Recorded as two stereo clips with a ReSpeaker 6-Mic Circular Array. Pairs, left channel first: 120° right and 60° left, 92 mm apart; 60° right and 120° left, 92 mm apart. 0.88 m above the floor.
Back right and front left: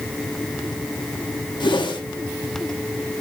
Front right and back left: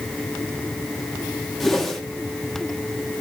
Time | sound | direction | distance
1.6 | a whoosh | 150° right | 1.5 m